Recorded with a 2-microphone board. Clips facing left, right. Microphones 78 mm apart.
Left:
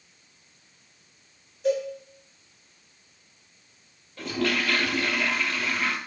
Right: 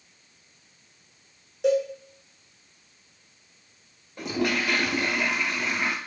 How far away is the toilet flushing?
About 0.7 m.